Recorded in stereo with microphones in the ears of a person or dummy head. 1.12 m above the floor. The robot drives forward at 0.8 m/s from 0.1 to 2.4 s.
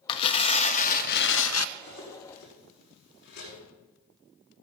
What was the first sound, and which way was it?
Tearing paper, 25° left (ahead or behind).